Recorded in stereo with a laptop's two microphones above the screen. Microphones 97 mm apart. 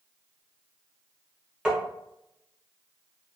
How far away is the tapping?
About 0.9 m.